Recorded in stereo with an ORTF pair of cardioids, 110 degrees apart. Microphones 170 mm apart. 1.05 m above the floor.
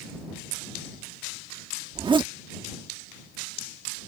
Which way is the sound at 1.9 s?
30° right.